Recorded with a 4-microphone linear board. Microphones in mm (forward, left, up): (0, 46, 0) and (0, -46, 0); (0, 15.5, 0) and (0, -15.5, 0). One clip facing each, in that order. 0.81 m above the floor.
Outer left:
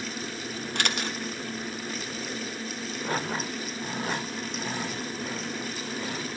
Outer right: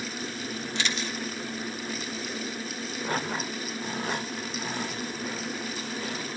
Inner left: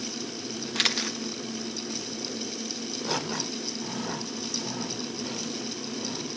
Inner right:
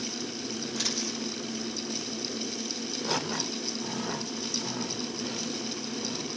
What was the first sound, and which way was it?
A camera shutter, 60° left (ahead or behind).